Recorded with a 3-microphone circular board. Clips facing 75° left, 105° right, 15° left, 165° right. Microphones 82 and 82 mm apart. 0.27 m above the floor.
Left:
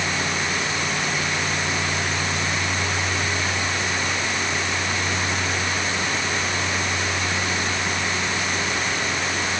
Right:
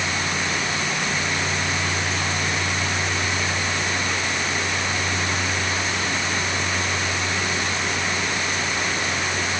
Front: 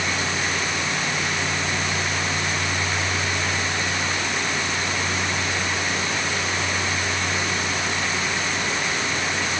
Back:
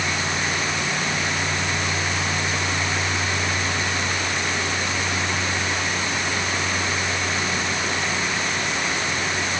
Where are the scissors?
No scissors in this recording.